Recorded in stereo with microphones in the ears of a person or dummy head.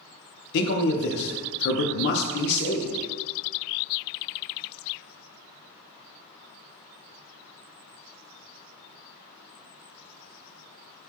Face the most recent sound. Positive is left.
turn(degrees=60)  # may be behind; listen again after turning